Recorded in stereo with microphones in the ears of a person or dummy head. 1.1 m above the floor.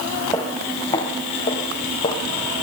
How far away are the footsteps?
About 1.1 m.